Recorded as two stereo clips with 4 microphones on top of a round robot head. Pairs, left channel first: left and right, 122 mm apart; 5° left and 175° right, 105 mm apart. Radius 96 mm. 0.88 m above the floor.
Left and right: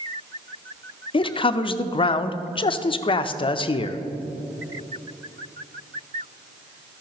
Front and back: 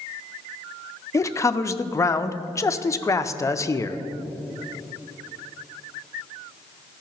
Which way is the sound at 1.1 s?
60° left.